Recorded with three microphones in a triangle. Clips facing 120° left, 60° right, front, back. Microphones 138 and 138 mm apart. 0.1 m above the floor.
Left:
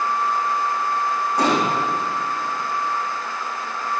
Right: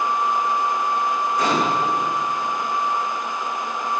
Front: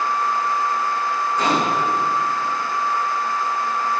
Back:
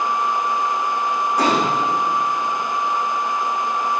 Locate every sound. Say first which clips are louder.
1.4 s a gunshot: left 2 dB, back 1 dB; 130° left, 6 m